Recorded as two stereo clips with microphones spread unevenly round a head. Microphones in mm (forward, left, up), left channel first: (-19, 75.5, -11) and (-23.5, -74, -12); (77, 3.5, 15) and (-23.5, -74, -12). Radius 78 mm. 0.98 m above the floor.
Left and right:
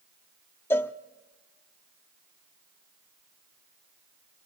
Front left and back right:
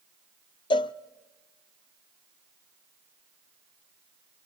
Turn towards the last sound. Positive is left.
turn(degrees=15)